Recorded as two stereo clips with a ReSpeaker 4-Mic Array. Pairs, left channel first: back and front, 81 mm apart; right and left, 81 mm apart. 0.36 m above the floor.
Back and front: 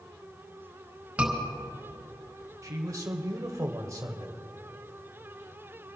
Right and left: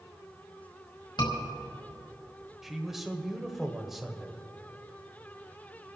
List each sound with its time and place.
1.2 s a scream: 75° right, 5 m
2.6 s a man speaking: 5° left, 1.1 m